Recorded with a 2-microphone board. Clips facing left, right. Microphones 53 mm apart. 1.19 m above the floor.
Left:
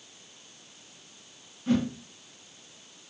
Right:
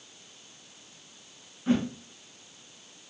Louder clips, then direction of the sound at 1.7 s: Even; 25° right (ahead or behind).